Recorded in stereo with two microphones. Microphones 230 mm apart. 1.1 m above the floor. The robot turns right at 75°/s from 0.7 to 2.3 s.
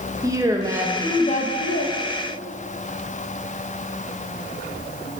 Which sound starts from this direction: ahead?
A woman speaking, at 0.2 s.